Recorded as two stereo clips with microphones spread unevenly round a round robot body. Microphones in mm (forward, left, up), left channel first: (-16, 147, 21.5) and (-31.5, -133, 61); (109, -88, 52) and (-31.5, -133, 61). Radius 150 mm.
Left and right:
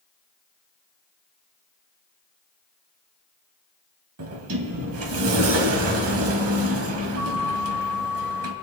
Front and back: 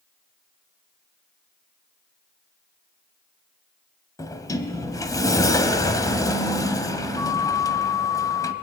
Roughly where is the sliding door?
Ahead right.